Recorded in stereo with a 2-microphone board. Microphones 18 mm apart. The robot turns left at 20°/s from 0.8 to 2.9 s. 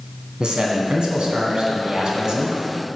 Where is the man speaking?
100° right, 2 m; by 2.6 s 135° right, 2 m.